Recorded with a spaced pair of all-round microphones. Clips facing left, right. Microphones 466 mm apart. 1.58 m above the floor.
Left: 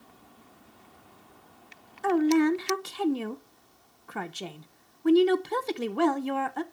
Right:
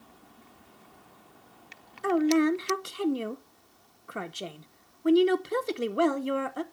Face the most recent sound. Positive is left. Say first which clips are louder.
# left 1 dB
turn(degrees=10)  # may be behind; listen again after turning